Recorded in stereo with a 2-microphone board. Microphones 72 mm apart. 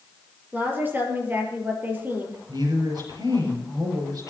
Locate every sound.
0.5 s a woman speaking: 25° right (ahead or behind), 5 m
2.5 s a woman speaking: 75° right (ahead or behind), 6 m